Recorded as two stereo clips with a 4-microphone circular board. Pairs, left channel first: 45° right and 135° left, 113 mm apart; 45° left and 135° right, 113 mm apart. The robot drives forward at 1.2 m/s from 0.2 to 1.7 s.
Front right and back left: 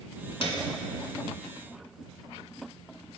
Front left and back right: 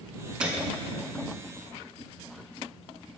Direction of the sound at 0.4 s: 55° right.